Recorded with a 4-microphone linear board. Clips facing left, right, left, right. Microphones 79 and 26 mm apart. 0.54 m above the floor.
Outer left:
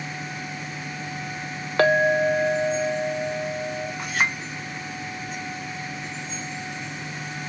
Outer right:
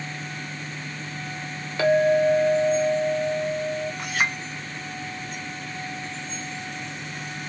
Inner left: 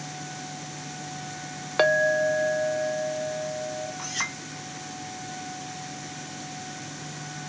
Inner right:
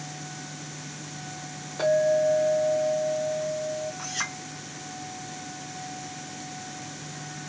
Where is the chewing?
No chewing in this recording.